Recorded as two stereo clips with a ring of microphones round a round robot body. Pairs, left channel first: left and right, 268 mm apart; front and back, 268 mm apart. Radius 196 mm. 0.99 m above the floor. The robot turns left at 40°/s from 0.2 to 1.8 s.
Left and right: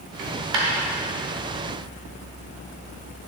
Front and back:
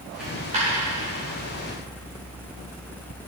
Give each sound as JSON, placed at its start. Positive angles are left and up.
{"t": 0.2, "sound": "a dropped coin", "azimuth_deg": -90, "distance_m": 1.4}